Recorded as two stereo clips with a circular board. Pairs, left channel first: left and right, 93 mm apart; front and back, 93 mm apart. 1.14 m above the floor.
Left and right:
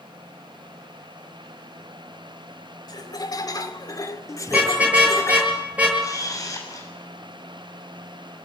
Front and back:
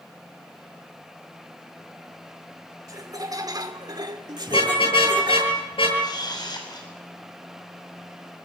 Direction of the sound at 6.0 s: 40° left.